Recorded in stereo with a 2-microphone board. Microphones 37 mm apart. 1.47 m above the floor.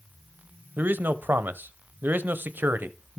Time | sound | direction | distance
0.8 | a man speaking | 65° right (ahead or behind) | 0.7 m